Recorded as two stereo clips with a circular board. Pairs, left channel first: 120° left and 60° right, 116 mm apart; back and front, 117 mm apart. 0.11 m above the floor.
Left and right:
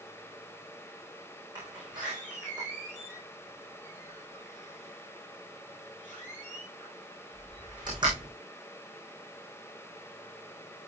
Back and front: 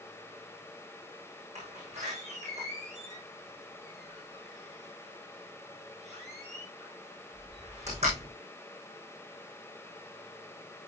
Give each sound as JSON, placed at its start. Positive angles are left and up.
{"t": 1.6, "sound": "a door slam", "azimuth_deg": -10, "distance_m": 7.0}